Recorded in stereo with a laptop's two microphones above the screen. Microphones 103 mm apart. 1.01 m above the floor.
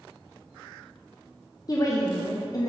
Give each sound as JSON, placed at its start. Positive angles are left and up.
{"t": 1.7, "sound": "a woman speaking", "side_deg": 35, "distance_m": 0.5}